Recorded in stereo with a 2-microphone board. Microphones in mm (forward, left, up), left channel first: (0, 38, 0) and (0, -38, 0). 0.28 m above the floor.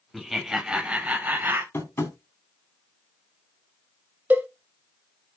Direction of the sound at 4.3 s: 20° right (ahead or behind).